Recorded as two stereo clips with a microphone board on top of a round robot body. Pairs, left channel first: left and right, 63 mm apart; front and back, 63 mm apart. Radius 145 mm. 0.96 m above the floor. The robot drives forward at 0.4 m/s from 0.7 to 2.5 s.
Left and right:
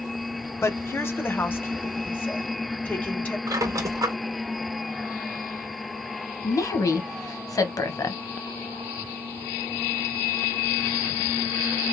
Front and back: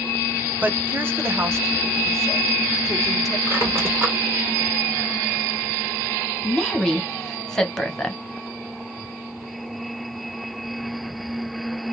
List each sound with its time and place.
0.6 s a woman speaking: 125° left, 1.2 m; by 3.4 s 150° left, 1.6 m
3.5 s a squeak: 125° right, 0.7 m
6.4 s a woman speaking: 80° left, 1.2 m